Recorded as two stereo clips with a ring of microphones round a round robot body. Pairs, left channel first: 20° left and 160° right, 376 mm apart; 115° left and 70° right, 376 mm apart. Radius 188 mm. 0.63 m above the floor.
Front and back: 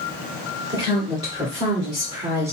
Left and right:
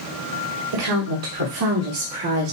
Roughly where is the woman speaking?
Right.